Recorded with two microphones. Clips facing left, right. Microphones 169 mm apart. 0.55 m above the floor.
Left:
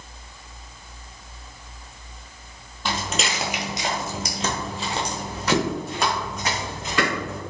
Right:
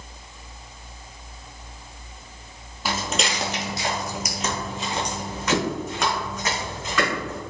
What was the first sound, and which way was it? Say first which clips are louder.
Footsteps: right 1 dB; 5° right (ahead or behind).